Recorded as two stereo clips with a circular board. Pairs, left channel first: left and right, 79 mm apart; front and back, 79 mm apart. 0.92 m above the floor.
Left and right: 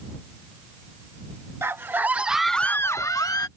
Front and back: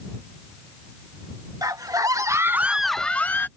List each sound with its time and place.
1.6 s a scream: 145° right; by 3.5 s 60° left